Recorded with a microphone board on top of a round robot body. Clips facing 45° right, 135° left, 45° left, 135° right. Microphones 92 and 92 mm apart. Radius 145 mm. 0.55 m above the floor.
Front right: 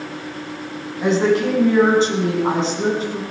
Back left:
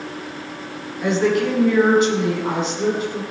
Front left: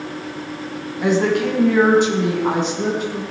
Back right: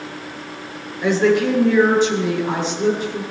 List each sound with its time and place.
1.0 s a woman speaking: 15° left, 5.5 m